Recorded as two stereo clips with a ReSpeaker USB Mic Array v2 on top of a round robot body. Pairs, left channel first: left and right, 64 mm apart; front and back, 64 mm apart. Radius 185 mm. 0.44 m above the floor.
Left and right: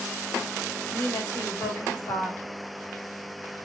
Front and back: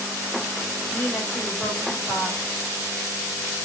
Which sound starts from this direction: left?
A woman speaking, at 0.9 s.